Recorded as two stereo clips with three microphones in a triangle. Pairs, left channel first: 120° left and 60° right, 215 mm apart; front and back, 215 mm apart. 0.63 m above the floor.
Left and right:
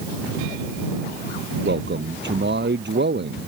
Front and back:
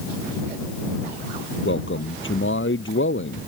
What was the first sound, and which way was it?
A man speaking, 25° right.